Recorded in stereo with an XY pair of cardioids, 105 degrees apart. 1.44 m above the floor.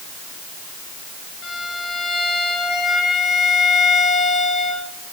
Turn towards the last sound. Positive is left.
turn(degrees=50)